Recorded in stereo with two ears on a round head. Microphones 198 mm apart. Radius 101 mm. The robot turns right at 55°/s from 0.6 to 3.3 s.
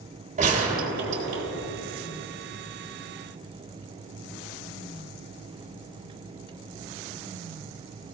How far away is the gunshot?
About 3.5 m.